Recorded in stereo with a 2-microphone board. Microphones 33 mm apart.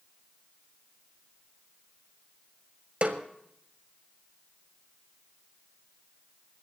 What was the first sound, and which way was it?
A snare drum, 40° right (ahead or behind).